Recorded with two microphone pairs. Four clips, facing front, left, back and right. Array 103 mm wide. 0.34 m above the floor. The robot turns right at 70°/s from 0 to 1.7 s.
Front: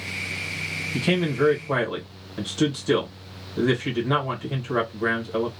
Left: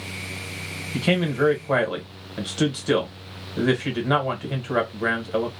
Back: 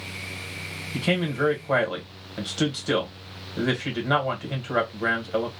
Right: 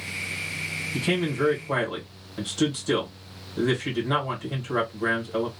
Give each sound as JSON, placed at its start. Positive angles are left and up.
{"t": 0.9, "sound": "a man speaking", "azimuth_deg": 70, "distance_m": 1.1}